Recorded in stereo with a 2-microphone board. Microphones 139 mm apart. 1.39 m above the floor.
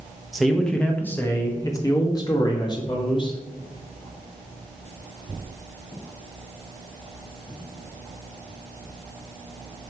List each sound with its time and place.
0.3 s a man speaking: centre (ahead or behind), 1.1 m; by 3.4 s 35° left (ahead or behind), 2.5 m